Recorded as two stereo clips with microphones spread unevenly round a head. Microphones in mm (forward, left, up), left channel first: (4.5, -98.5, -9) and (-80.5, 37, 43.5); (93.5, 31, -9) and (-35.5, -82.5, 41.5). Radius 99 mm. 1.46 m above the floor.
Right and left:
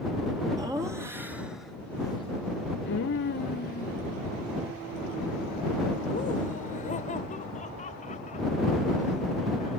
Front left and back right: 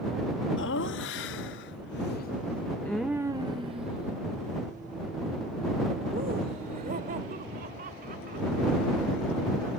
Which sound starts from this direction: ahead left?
Laughter, at 0.6 s.